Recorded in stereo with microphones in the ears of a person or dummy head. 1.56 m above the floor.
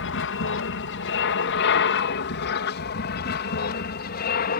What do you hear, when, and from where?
0.0 s an aircraft: 65° left (ahead or behind); by 4.6 s 50° left (ahead or behind)